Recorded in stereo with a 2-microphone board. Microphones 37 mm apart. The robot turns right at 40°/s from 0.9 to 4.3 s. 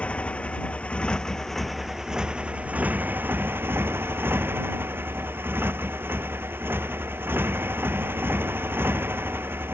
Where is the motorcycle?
145° left; by 9.7 s 75° right.